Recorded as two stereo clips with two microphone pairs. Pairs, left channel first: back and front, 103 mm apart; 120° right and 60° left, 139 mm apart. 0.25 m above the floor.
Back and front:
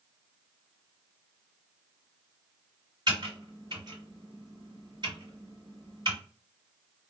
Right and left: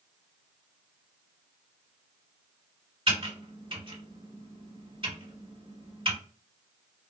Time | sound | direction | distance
3.1 | typing on a keyboard | 25° left | 2 m